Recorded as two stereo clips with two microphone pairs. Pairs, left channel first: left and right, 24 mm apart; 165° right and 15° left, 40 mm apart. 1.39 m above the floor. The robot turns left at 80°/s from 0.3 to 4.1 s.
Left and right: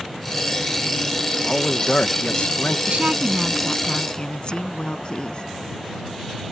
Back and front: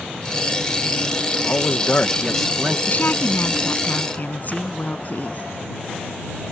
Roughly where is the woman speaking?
Behind right.